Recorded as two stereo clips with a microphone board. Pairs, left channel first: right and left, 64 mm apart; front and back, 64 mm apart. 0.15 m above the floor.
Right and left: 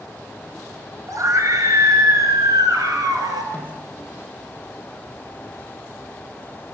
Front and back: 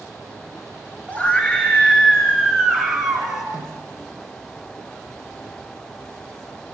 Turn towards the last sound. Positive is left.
turn(degrees=-20)